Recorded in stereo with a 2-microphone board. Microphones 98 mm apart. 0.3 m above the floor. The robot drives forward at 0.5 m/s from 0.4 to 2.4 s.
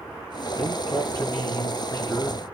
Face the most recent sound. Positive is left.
turn(degrees=35)  # may be behind; listen again after turning